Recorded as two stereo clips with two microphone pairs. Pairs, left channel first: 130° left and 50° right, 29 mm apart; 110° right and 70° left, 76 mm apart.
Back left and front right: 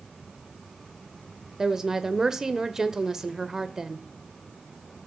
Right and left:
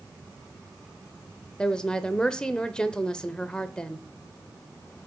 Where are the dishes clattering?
I don't hear dishes clattering.